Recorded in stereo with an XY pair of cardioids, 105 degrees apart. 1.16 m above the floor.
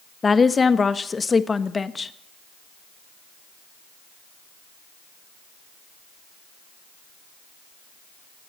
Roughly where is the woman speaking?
Ahead left.